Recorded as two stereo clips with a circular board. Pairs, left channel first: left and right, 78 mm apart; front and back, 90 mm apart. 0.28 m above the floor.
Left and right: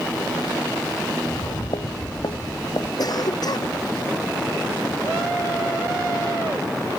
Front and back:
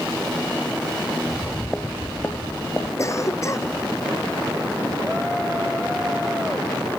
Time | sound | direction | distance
1.3 | footsteps | 90° left | ?
3.0 | a cough | 55° left | ?